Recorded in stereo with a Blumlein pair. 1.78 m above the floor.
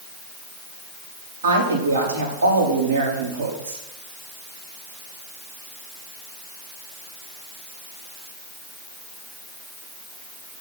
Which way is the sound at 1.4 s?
65° right.